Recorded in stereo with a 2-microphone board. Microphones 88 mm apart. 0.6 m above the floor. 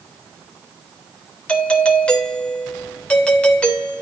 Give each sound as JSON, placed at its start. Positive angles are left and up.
{"t": 1.5, "sound": "a doorbell", "side_deg": 15, "distance_m": 3.0}